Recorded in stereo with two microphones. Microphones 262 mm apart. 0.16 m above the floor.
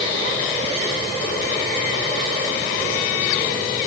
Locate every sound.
Only background noise.